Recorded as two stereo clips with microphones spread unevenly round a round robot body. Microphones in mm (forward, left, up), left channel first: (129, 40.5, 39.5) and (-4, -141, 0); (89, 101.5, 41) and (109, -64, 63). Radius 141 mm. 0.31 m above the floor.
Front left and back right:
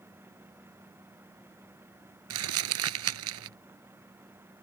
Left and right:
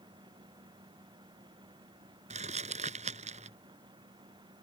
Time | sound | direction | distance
2.3 | crumpling | 145° right | ?